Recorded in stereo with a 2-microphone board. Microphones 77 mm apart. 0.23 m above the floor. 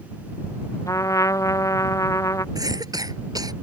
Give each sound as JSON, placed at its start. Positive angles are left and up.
{"t": 0.9, "sound": "a trumpet", "side_deg": 45}
{"t": 2.5, "sound": "a cough", "side_deg": -55}